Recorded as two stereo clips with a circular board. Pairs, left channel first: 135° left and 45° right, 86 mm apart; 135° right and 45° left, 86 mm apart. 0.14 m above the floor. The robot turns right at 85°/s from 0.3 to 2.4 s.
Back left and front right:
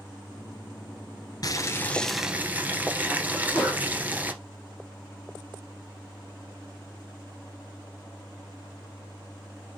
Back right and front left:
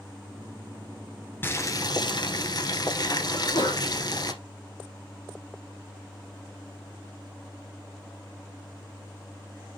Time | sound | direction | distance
1.4 | boiling | 165° left | 1.5 m
3.3 | a sneeze | 125° right | 4 m